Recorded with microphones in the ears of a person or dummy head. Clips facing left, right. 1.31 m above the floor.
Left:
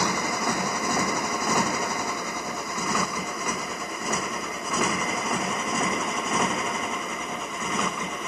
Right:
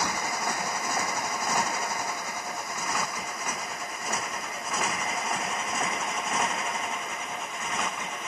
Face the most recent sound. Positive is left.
turn(degrees=80)